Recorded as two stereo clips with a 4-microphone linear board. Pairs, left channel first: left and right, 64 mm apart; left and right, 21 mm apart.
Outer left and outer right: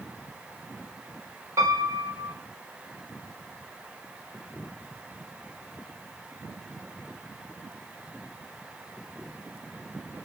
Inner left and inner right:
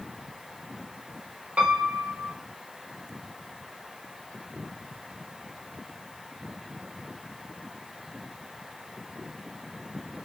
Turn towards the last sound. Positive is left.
turn(degrees=-60)  # may be behind; listen again after turning